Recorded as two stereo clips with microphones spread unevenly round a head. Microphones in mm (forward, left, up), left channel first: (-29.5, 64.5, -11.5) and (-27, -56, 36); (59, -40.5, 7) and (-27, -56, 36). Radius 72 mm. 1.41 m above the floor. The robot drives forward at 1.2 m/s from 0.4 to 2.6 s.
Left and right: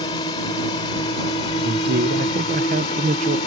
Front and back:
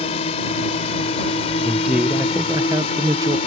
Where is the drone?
30° left; by 3.5 s 35° left.